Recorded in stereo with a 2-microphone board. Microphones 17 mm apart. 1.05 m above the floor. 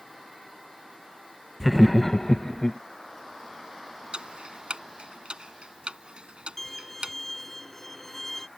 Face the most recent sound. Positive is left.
turn(degrees=15)  # may be behind; listen again after turning